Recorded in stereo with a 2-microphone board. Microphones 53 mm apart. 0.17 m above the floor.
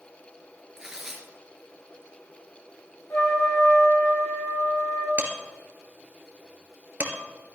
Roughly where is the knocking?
No knocking in this recording.